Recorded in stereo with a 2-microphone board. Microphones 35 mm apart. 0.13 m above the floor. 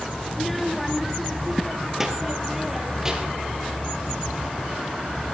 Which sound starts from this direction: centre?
A child speaking, at 0.3 s.